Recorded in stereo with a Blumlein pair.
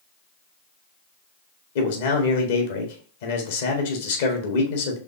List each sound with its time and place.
1.8 s a man speaking: 55° left, 1.5 m